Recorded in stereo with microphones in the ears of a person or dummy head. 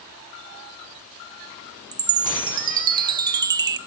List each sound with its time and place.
1.9 s a chime: 20° right (ahead or behind), 1.6 m